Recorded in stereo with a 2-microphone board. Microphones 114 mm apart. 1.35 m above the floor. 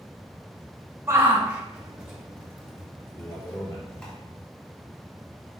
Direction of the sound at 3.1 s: 30° left (ahead or behind).